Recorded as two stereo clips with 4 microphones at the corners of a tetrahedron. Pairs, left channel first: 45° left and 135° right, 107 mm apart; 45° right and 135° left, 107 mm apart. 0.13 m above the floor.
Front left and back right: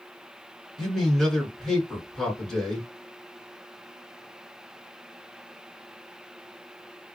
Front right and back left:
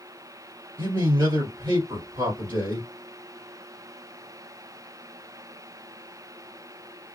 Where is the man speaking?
130° left, 2 m.